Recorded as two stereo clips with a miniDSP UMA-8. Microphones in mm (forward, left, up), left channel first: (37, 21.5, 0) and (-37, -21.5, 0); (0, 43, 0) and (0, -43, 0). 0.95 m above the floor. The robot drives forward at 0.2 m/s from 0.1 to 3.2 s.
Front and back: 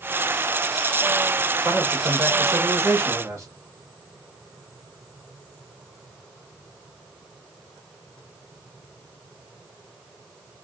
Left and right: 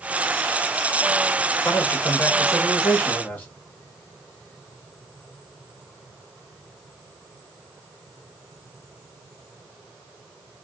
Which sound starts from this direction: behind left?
A man speaking, at 1.6 s.